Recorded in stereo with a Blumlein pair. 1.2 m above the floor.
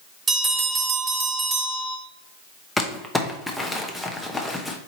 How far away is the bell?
About 1.4 m.